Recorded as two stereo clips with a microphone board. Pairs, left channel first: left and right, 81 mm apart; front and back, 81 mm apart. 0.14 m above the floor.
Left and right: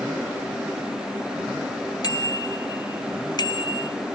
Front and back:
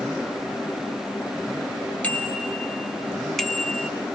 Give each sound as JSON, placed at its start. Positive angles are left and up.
{"t": 2.0, "sound": "a bicycle bell", "azimuth_deg": 75, "distance_m": 3.0}